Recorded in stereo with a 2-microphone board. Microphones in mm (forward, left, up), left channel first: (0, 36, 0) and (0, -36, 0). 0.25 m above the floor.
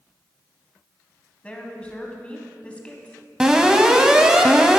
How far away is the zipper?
No zipper in this recording.